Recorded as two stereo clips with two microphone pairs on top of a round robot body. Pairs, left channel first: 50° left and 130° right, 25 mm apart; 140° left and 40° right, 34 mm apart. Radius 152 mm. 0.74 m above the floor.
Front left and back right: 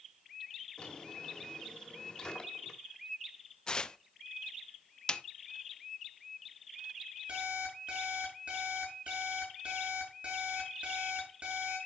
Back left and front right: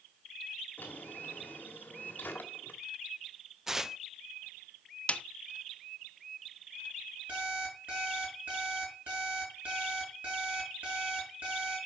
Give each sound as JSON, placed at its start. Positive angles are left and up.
{"t": 0.8, "sound": "a drawer", "azimuth_deg": 105, "distance_m": 1.5}
{"t": 3.7, "sound": "tearing paper", "azimuth_deg": 40, "distance_m": 0.8}
{"t": 5.1, "sound": "a snare drum", "azimuth_deg": 100, "distance_m": 0.7}
{"t": 7.3, "sound": "an alarm clock", "azimuth_deg": -85, "distance_m": 6.0}